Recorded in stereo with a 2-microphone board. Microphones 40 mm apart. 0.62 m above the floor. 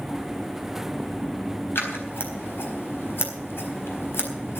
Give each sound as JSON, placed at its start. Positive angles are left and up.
{"t": 1.8, "sound": "scissors", "side_deg": 75, "distance_m": 4.0}